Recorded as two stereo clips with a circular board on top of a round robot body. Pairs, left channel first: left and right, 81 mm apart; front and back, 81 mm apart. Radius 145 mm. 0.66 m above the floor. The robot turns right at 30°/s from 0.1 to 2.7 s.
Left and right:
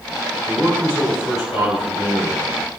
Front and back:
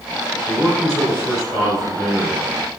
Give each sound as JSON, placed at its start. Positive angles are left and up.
{"t": 0.5, "sound": "a man speaking", "azimuth_deg": 20, "distance_m": 2.0}